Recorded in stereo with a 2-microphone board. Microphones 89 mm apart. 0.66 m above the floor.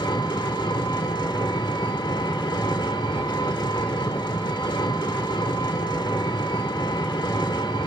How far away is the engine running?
About 1.4 m.